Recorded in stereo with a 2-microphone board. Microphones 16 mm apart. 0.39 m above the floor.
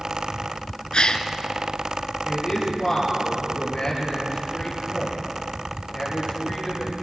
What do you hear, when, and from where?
0.9 s a gasp: 75° left (ahead or behind), 1.6 m
2.2 s a man speaking: 55° left (ahead or behind), 8.5 m